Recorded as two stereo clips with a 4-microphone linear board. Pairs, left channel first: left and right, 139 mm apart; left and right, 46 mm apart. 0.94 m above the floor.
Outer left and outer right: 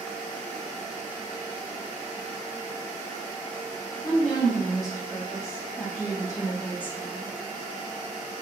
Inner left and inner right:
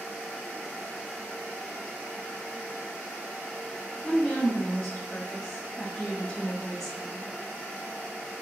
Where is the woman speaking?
25° left (ahead or behind), 1.8 m; by 7.3 s centre (ahead or behind), 0.7 m.